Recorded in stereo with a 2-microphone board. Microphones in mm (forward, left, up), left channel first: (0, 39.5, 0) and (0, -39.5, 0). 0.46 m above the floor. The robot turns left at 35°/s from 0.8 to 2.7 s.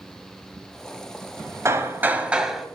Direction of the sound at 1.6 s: 145° right.